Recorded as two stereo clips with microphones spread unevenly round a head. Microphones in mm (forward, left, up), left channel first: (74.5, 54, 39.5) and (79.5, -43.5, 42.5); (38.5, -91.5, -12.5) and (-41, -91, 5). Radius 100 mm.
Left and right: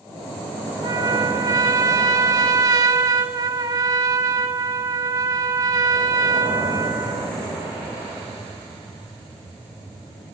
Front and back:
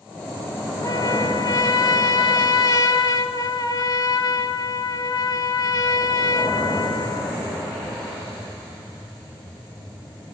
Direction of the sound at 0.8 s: 35° right.